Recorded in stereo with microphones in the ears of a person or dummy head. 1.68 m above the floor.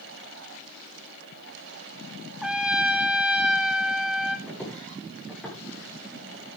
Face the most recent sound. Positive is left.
turn(degrees=0)  # may be behind; listen again after turning